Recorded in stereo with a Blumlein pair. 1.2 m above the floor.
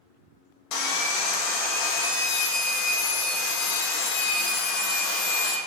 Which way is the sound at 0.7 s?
40° left.